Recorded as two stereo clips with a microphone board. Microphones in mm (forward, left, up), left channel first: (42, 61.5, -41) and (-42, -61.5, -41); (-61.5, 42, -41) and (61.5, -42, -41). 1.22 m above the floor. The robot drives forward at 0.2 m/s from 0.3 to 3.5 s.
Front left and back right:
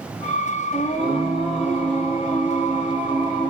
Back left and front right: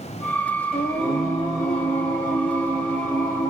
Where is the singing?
100° left, 1.8 m; by 3.5 s 115° left, 2.0 m.